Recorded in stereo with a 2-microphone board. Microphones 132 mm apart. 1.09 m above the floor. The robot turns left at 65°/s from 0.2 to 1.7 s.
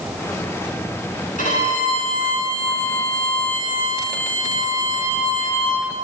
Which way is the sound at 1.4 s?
85° left.